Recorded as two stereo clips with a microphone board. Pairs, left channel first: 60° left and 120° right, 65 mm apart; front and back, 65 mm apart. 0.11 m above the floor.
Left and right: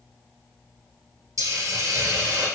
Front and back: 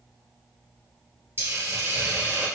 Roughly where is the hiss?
Behind right.